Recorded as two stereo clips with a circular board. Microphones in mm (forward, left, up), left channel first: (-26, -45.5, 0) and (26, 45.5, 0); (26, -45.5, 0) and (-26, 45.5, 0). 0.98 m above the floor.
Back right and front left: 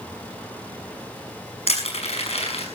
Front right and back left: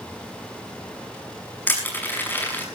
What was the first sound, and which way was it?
Crushing, 135° right.